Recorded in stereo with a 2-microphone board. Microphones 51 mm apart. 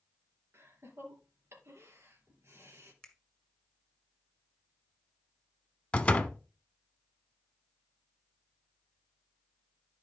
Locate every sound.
0.5 s laughter: 60° right (ahead or behind), 3.5 m
3.0 s a finger snap: 10° left (ahead or behind), 1.8 m
5.9 s a door slam: 25° left (ahead or behind), 0.9 m